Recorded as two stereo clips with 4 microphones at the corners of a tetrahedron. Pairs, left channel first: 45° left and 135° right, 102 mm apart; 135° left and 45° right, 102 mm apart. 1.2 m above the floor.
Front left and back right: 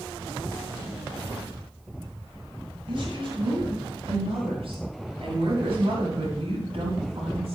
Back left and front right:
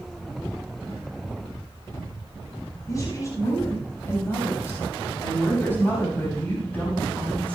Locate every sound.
2.9 s a woman speaking: 170° right, 5.5 m; by 7.6 s 150° right, 8.5 m